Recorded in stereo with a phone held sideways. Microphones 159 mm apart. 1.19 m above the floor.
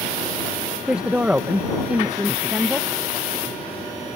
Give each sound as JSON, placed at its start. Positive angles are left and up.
{"t": 0.9, "sound": "a woman speaking", "side_deg": -10}